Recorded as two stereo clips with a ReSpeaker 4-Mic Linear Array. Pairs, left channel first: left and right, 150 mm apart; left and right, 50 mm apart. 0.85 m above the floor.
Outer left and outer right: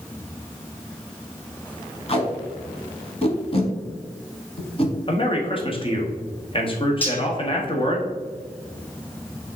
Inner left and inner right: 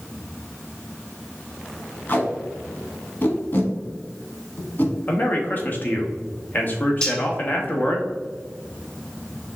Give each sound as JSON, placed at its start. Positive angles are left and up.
{"t": 2.1, "sound": "tape being pulled", "side_deg": 40, "distance_m": 1.0}
{"t": 5.1, "sound": "a man speaking", "side_deg": 35, "distance_m": 1.1}
{"t": 7.0, "sound": "cutlery clinking", "side_deg": 15, "distance_m": 1.0}